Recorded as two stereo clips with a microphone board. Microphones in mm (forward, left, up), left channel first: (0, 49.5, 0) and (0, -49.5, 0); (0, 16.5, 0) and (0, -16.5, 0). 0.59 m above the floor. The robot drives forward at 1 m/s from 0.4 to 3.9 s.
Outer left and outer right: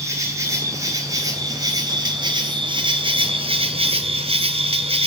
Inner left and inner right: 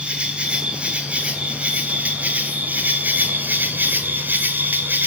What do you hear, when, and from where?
0.0 s an insect: 30° right (ahead or behind), 4.5 m; by 5.1 s 65° right (ahead or behind), 2.5 m